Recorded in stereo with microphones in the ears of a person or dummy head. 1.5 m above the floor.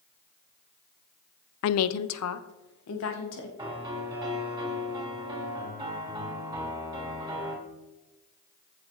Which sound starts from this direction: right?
A piano, at 3.6 s.